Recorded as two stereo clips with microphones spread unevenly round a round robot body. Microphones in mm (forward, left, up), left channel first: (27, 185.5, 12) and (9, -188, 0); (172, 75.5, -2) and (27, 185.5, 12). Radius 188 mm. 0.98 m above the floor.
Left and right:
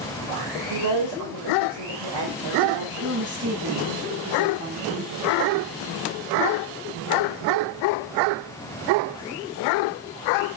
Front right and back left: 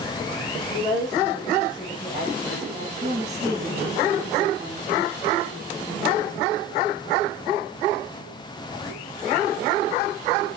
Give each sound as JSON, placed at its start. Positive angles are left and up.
{"t": 0.7, "sound": "a woman speaking", "azimuth_deg": -125, "distance_m": 4.5}
{"t": 3.0, "sound": "a woman speaking", "azimuth_deg": -145, "distance_m": 7.5}